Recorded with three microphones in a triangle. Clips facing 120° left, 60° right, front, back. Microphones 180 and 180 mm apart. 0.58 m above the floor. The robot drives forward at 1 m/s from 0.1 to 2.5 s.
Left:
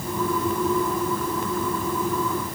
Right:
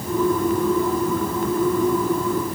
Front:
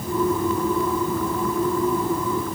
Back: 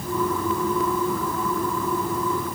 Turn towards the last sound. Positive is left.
No sound to turn to.